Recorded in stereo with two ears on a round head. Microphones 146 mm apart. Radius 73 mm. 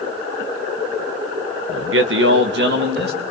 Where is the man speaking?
90° right, 1.3 m; by 3.2 s 70° right (ahead or behind), 3 m.